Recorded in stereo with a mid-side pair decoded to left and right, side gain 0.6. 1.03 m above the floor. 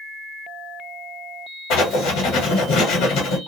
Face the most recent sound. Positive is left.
turn(degrees=70)